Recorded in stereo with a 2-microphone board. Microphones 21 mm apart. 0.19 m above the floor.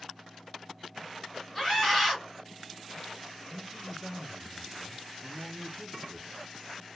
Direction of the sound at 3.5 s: 30° right (ahead or behind).